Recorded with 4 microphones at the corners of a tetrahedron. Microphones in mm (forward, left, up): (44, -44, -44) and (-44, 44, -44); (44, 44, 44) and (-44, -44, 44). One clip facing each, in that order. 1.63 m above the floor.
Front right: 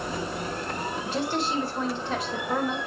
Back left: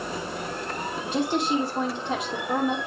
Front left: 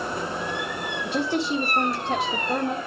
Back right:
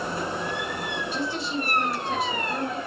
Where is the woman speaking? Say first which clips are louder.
Back left 4 dB, front left 9 dB; 80° left, 1.1 m.